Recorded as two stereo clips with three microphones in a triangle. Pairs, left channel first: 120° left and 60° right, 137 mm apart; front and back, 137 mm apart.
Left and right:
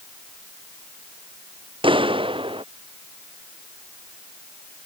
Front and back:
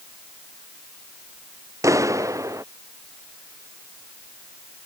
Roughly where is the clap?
Right.